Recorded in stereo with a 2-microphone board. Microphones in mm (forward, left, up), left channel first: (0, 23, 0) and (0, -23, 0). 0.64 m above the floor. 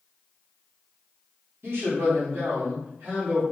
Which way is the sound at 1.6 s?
55° right (ahead or behind).